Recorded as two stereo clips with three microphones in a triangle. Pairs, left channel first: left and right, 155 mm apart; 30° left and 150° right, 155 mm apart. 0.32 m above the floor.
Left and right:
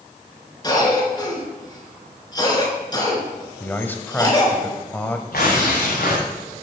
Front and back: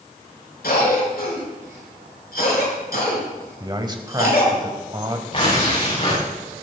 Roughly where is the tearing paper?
Left.